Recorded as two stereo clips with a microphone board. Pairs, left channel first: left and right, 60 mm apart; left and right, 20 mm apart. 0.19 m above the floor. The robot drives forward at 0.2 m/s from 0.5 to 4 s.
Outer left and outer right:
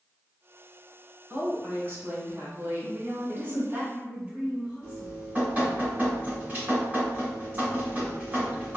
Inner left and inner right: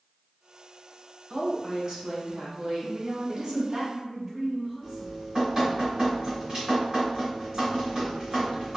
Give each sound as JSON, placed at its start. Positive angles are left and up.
{"t": 1.3, "sound": "a woman speaking", "side_deg": -40, "distance_m": 1.6}
{"t": 2.8, "sound": "a woman speaking", "side_deg": -15, "distance_m": 1.7}
{"t": 4.8, "sound": "dripping", "side_deg": -30, "distance_m": 1.7}